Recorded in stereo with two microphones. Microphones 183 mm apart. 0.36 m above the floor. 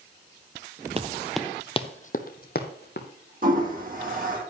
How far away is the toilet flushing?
About 3 m.